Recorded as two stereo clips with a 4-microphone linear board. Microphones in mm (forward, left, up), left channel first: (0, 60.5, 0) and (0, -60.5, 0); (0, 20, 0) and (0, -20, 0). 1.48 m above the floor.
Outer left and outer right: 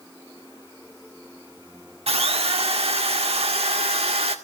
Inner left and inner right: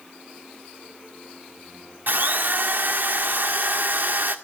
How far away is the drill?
About 1.5 m.